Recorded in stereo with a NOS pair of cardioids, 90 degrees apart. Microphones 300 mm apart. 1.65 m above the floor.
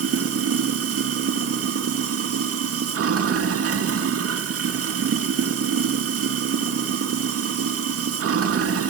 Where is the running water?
50° right, 2 m.